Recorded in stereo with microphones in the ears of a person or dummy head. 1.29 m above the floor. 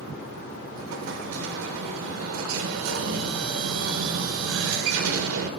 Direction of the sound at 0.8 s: 70° right (ahead or behind).